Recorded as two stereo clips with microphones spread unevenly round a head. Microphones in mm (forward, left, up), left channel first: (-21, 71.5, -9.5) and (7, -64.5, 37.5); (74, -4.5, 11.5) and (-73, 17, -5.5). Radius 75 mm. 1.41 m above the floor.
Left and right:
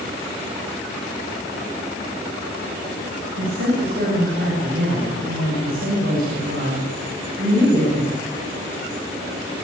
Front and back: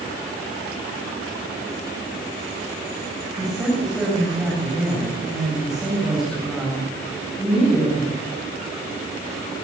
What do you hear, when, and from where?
3.4 s a woman speaking: 100° right, 8 m